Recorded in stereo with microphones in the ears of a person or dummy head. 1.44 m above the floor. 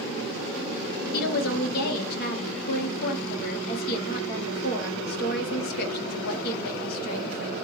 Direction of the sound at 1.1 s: 55° left (ahead or behind).